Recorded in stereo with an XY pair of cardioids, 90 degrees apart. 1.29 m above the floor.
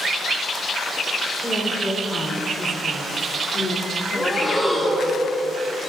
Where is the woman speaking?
10° left, 5 m; by 5.2 s 70° left, 3 m.